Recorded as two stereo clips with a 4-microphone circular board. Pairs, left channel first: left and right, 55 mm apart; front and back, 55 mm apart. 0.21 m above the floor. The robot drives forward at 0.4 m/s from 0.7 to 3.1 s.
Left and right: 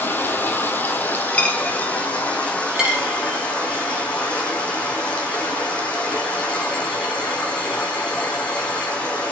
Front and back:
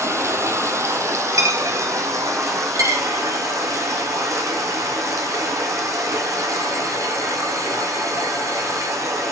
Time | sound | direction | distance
0.0 | running water | 145° left | 1.5 m
1.3 | a dropped coin | 155° left | 1.9 m
2.8 | a dropped coin | 165° right | 3 m